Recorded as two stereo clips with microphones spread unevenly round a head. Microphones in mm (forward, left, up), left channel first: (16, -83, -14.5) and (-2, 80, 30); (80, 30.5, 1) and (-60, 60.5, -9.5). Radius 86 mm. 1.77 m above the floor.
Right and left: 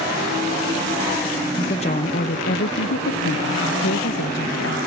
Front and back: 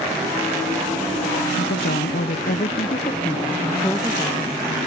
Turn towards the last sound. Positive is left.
turn(degrees=-100)